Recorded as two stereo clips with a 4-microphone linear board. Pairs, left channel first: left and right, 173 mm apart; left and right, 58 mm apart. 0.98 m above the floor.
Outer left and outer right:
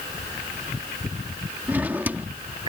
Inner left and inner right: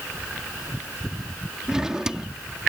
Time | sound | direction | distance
1.7 | a drawer | 10° right (ahead or behind) | ?